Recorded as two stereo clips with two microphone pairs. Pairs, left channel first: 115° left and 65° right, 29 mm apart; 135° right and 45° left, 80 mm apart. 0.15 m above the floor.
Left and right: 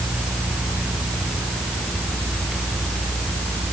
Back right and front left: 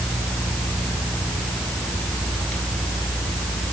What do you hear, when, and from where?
Only background noise.